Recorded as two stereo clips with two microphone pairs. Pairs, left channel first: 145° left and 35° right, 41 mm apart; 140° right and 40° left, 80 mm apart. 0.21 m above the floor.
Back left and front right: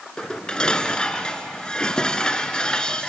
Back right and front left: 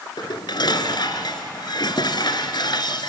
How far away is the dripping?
I don't hear dripping.